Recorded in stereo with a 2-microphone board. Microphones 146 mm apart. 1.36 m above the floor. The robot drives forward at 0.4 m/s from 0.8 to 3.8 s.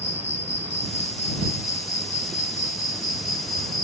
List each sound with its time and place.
0.0 s an insect: 55° left (ahead or behind); by 3.9 s 75° left (ahead or behind)